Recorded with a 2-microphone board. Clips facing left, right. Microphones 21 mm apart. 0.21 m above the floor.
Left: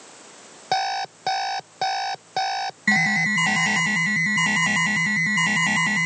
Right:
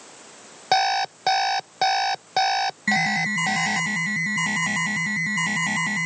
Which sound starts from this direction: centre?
An alarm, at 2.9 s.